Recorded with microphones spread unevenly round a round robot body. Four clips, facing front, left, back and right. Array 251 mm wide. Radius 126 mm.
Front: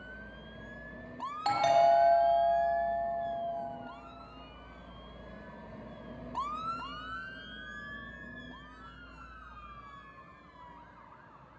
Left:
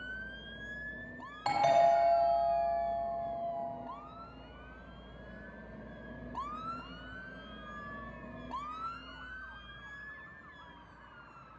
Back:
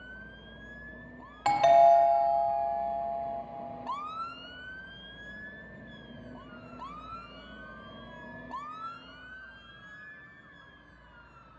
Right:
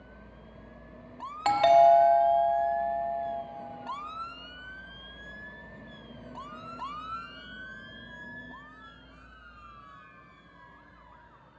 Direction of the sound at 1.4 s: 95° right.